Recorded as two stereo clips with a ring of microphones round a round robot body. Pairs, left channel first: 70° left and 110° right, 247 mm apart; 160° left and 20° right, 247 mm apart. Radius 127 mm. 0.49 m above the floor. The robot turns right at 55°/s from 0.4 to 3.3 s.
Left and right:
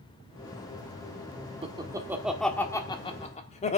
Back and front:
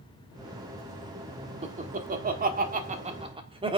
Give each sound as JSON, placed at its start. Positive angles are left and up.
{"t": 1.6, "sound": "laughter", "azimuth_deg": -65, "distance_m": 1.2}